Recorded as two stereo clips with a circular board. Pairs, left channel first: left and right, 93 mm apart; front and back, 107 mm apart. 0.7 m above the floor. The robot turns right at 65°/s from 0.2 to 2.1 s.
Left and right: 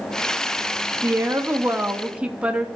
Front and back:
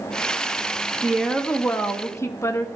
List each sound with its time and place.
1.0 s a woman speaking: 95° right, 0.8 m; by 2.7 s 25° right, 0.8 m